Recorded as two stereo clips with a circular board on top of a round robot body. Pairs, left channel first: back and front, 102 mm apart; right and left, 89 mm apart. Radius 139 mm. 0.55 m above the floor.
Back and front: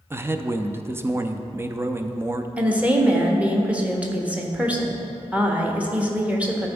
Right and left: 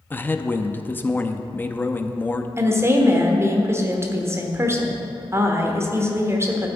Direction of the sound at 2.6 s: 65° left.